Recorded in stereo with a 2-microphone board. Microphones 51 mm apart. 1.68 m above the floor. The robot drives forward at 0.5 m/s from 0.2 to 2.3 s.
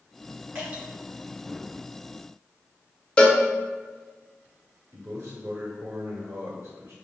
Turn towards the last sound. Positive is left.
turn(degrees=-60)  # may be behind; listen again after turning